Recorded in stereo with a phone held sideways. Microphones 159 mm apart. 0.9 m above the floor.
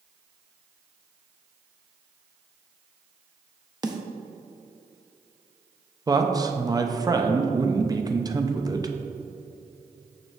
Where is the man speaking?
25° right (ahead or behind), 0.6 m.